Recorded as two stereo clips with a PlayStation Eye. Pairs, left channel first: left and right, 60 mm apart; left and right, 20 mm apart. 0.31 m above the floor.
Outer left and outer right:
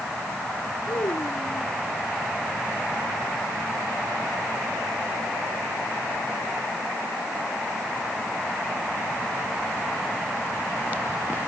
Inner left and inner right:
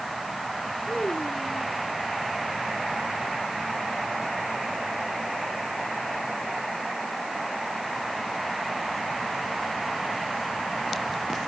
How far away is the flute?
No flute in this recording.